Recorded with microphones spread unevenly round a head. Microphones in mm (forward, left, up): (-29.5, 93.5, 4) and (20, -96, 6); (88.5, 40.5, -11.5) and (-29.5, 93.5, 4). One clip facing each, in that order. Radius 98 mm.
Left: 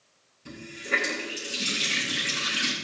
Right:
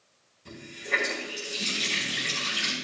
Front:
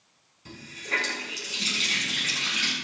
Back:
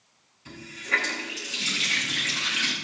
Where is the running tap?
25° left, 8 m.